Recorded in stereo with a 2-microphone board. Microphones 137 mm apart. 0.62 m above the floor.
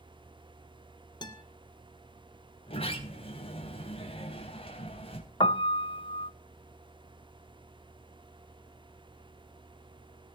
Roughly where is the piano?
Left.